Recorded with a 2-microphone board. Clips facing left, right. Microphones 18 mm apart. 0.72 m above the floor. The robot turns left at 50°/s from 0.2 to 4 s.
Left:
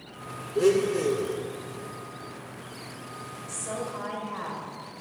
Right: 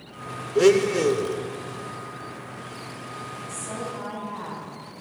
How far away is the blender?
About 0.6 m.